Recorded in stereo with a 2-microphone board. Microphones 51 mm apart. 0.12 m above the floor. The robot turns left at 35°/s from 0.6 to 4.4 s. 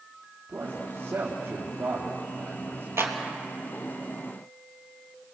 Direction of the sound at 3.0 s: 55° right (ahead or behind).